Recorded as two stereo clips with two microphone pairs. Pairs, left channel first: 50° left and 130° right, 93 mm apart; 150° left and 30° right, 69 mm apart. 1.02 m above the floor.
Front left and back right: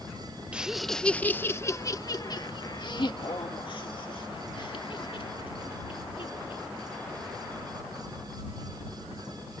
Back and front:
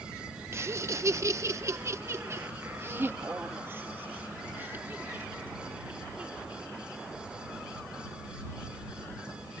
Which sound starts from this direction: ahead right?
Laughter, at 0.5 s.